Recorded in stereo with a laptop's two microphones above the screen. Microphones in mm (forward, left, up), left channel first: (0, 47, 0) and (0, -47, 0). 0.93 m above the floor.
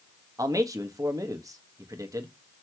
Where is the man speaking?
40° right (ahead or behind), 1.3 m.